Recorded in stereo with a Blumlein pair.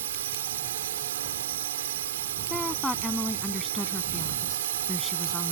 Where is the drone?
60° right.